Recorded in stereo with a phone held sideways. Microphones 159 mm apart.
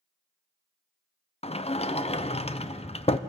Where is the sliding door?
40° left (ahead or behind), 0.6 m.